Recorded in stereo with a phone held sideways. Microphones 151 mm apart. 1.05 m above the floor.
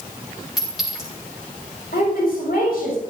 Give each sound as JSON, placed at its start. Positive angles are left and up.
{"t": 0.6, "sound": "a clink", "side_deg": 0, "distance_m": 7.0}
{"t": 1.9, "sound": "a woman speaking", "side_deg": 85, "distance_m": 7.0}